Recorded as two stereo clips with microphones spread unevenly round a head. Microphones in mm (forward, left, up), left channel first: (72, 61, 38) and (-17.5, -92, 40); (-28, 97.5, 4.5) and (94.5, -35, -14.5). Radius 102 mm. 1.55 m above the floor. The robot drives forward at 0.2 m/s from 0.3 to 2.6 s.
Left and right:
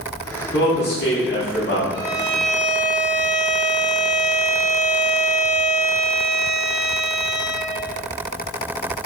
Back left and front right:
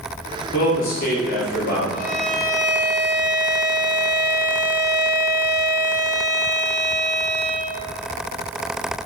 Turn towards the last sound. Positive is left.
turn(degrees=180)